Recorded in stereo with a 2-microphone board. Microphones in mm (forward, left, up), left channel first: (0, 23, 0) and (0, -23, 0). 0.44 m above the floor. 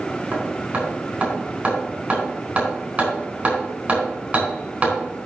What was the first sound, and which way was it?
Hammering, 30° right (ahead or behind).